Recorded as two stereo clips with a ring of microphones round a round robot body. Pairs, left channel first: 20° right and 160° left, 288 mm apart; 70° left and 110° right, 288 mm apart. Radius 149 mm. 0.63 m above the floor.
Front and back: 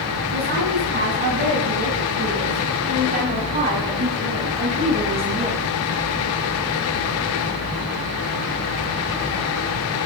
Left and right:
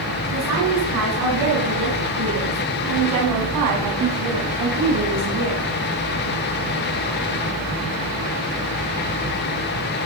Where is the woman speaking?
145° right, 6 m; by 5.7 s 115° right, 3.5 m.